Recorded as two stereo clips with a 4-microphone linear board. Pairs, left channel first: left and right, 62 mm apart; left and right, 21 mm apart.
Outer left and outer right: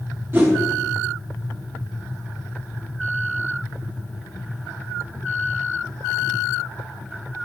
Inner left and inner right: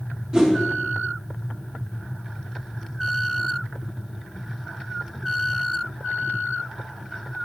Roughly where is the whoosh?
Right.